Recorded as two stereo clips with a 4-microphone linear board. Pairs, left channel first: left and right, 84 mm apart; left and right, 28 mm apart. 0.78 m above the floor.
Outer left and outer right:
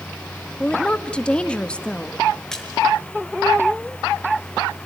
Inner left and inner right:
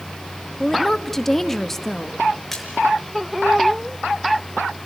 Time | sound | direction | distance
0.6 | a woman speaking | 10° left (ahead or behind) | 0.9 m
2.5 | a splash | 5° left (ahead or behind) | 5 m